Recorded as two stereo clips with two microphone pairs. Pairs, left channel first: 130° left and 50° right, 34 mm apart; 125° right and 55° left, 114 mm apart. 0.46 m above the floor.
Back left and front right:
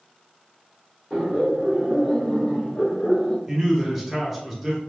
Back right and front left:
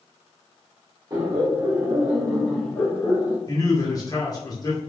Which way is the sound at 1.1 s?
35° left.